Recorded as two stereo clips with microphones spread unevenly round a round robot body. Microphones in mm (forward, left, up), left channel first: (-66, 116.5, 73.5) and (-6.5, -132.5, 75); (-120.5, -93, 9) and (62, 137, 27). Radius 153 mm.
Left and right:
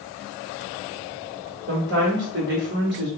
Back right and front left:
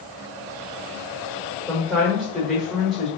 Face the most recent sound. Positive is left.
turn(degrees=-40)